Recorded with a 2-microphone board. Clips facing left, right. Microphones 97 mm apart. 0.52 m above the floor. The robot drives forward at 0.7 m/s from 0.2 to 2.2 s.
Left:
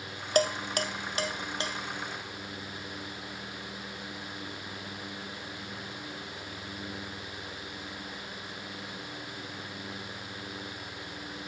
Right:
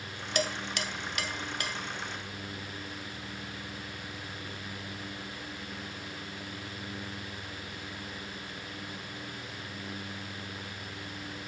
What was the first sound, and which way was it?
Dishes clattering, 45° left (ahead or behind).